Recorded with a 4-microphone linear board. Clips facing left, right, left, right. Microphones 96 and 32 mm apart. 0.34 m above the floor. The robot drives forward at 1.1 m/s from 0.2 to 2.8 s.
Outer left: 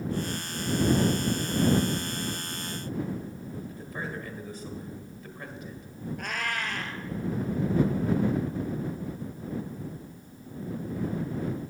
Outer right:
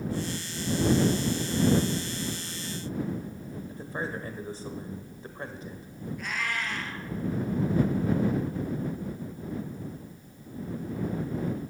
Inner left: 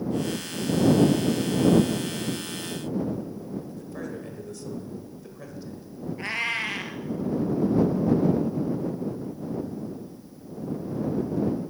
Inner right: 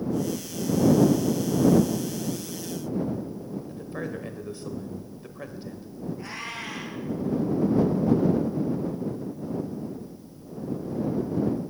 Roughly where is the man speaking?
Right.